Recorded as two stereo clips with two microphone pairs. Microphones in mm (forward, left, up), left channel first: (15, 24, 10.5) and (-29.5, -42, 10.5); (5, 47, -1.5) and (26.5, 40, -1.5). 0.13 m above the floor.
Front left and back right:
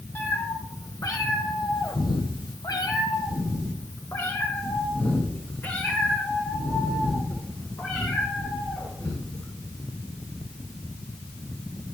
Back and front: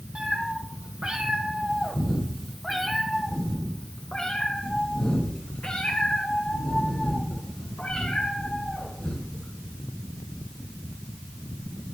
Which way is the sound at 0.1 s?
5° left.